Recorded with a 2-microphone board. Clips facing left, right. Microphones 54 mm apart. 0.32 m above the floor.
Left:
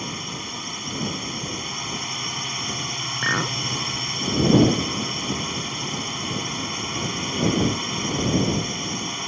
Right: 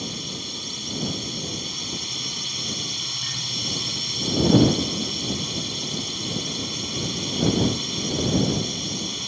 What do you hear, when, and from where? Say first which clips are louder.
0.0 s a drone: left 2 dB; 35° left (ahead or behind)
3.2 s a clink: left 11 dB; 75° left (ahead or behind)